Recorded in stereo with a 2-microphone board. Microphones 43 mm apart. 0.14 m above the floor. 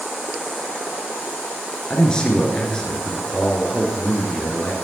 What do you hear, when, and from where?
1.9 s a man speaking: 20° left (ahead or behind), 2 m